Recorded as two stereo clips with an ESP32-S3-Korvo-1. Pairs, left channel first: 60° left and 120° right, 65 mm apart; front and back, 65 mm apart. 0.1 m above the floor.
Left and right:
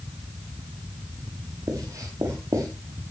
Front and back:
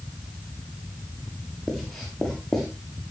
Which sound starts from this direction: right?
Writing, at 1.7 s.